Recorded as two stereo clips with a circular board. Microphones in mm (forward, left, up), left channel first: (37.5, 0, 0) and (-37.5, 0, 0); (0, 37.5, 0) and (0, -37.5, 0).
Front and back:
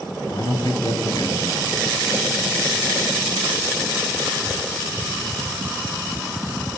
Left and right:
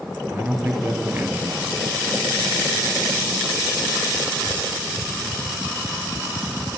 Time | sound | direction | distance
0.2 | a man speaking | 30° right | 3.5 m